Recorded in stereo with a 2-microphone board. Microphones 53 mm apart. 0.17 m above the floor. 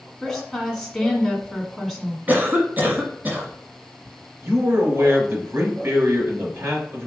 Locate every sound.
0.2 s a woman speaking: 5° left (ahead or behind), 1.5 m
2.3 s a cough: 35° right (ahead or behind), 1.2 m
4.4 s a man speaking: 45° right (ahead or behind), 2.5 m